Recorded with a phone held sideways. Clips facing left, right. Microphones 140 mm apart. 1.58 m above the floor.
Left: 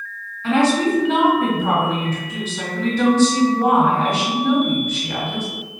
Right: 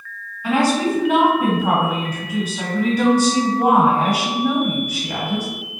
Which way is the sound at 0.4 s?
10° right (ahead or behind).